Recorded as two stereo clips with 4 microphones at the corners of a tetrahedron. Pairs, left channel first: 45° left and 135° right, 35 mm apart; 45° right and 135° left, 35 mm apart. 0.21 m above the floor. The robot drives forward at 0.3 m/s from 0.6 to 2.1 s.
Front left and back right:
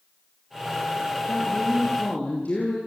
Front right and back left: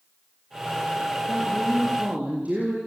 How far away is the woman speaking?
About 6 m.